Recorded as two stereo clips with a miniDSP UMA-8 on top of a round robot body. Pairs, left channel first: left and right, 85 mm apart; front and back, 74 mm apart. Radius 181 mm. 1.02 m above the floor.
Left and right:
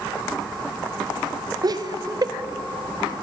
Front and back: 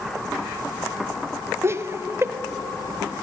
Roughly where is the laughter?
Behind right.